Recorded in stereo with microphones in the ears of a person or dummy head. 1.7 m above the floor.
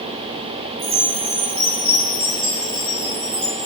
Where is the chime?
30° right (ahead or behind), 2.5 m.